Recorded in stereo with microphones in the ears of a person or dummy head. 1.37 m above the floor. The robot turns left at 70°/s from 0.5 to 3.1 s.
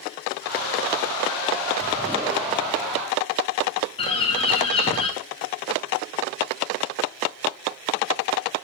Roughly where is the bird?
Left.